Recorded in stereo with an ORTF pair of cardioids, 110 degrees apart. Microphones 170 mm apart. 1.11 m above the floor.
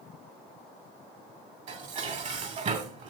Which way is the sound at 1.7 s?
45° right.